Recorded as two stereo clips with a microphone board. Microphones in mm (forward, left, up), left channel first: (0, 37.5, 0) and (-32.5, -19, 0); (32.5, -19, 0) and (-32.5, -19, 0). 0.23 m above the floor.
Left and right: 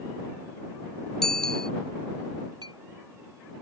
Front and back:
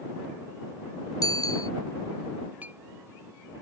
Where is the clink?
115° right.